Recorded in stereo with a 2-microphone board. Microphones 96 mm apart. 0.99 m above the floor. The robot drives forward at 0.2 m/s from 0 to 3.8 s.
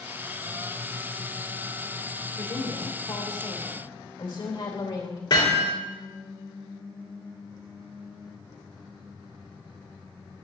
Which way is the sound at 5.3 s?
55° left (ahead or behind).